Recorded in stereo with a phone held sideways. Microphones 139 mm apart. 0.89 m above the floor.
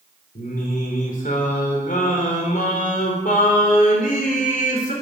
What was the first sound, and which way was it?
Singing, 75° left (ahead or behind).